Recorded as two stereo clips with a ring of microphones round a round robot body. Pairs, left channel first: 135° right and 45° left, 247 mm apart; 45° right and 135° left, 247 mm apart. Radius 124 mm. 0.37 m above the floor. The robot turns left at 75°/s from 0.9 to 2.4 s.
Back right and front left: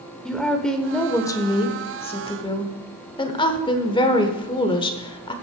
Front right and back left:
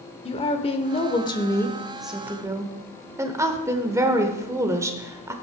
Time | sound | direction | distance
0.2 | a woman speaking | 55° right | 1.0 m